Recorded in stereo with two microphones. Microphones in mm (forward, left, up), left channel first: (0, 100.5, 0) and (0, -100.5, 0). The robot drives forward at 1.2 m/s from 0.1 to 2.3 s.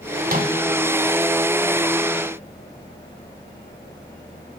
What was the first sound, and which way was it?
A microwave, 45° right (ahead or behind).